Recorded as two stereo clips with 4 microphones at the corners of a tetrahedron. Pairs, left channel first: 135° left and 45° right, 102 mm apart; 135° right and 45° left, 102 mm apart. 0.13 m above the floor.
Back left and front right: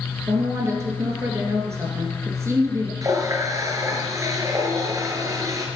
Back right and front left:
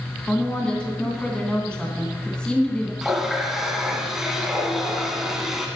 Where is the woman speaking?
65° right, 1.6 m.